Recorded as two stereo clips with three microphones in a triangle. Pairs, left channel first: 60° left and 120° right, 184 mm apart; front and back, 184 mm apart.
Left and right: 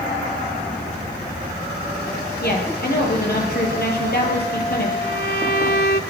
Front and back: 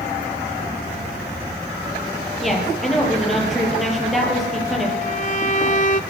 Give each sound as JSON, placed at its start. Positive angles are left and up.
{"t": 2.4, "sound": "a woman speaking", "azimuth_deg": 90, "distance_m": 8.0}
{"t": 5.0, "sound": "a violin", "azimuth_deg": 45, "distance_m": 0.8}